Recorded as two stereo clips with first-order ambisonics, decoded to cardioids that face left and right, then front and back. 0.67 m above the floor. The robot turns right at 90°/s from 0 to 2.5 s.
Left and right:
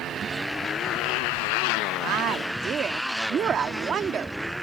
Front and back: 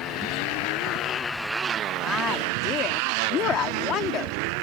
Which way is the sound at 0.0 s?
45° right.